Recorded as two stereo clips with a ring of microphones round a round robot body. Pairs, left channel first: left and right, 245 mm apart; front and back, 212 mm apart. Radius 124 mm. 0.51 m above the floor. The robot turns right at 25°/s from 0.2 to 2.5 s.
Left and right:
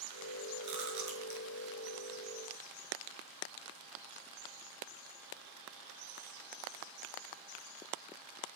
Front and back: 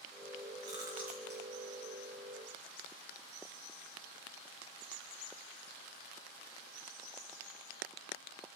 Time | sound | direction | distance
0.6 | chewing | 105° right | 5 m